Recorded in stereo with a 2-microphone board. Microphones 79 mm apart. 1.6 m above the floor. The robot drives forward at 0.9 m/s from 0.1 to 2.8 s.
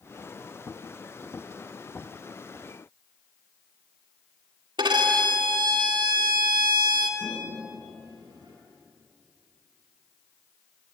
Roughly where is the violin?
Right.